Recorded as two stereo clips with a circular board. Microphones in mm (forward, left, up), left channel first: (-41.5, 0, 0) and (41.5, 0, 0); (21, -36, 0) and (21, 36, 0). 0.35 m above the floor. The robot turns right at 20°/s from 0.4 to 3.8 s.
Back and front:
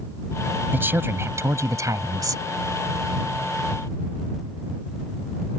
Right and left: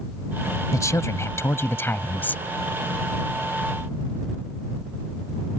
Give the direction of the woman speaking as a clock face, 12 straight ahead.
2 o'clock.